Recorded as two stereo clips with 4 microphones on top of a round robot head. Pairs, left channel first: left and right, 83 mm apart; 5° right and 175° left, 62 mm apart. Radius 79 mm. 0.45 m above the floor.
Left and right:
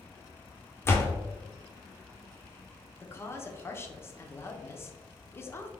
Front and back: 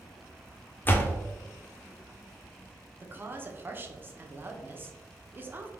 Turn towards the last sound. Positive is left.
turn(degrees=135)